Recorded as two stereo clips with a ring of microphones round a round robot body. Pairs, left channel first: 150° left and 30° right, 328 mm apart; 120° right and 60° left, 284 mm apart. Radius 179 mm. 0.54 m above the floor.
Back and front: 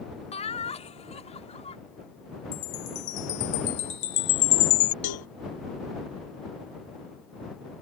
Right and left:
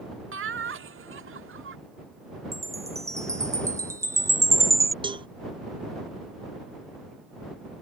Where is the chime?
140° left.